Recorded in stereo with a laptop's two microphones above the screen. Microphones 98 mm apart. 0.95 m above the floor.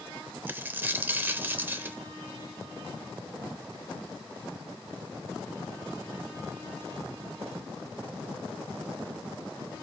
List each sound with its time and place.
0.5 s a dropped coin: 20° right (ahead or behind), 0.8 m